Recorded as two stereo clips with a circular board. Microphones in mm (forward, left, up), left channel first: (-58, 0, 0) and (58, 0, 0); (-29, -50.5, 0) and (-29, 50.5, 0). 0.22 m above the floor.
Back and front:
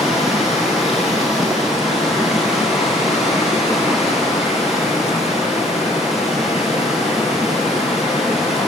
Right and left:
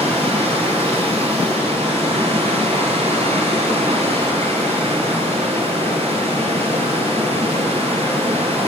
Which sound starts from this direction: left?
Running water, at 0.0 s.